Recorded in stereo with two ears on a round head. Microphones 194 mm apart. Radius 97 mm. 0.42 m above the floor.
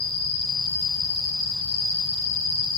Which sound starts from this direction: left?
An insect, at 0.0 s.